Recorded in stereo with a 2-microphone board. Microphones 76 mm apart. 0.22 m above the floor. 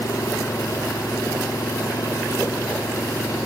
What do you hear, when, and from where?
0.0 s an engine running: 50° left (ahead or behind)